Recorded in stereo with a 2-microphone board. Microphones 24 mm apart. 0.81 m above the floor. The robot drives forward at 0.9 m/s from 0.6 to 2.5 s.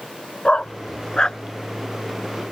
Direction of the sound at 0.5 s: 45° left (ahead or behind).